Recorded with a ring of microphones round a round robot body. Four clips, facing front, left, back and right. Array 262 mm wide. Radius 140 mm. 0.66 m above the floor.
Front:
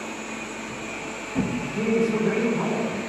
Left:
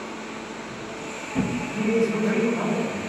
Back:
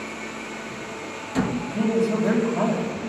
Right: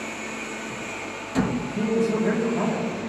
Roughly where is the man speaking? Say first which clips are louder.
Left 1 dB, front 1 dB; behind.